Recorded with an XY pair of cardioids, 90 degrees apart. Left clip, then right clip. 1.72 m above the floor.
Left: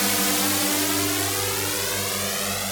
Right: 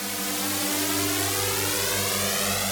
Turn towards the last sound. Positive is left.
turn(degrees=-10)